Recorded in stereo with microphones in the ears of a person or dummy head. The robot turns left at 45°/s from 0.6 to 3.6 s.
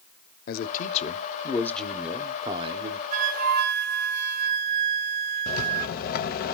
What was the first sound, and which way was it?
A man speaking, 60° left.